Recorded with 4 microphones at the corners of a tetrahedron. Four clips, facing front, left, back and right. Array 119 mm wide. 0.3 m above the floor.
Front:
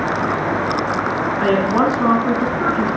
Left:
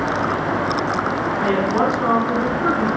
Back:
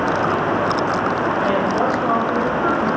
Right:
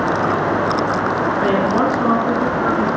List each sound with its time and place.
1.4 s a woman speaking: 15° right, 3.5 m